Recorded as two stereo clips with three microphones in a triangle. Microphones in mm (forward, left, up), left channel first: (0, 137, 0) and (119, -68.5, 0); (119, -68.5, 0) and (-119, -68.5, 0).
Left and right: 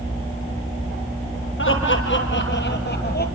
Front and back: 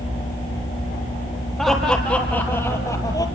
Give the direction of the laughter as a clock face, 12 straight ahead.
9 o'clock.